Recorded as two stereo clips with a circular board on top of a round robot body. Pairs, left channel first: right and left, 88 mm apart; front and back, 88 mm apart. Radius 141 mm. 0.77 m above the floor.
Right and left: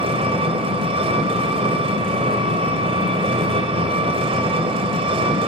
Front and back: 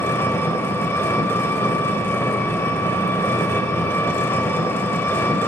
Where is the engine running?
65° left, 3.5 m.